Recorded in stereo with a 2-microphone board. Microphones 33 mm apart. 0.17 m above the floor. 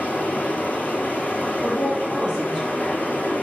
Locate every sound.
0.0 s running water: 70° left (ahead or behind), 0.8 m
1.6 s a woman speaking: 15° right (ahead or behind), 2.0 m